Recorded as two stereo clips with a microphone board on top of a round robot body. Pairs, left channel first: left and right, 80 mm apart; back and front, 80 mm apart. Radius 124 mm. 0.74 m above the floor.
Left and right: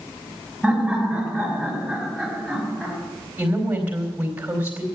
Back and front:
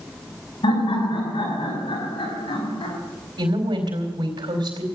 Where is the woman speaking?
20° right, 4 m.